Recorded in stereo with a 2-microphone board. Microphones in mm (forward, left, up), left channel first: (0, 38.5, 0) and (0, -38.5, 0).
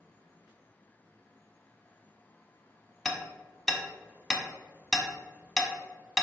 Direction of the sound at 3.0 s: 5° left (ahead or behind).